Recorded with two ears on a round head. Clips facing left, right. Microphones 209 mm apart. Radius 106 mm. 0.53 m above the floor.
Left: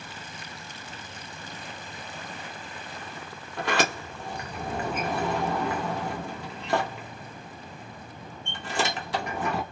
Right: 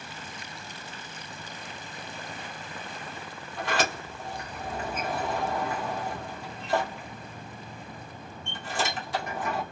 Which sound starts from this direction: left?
A sliding door, at 3.6 s.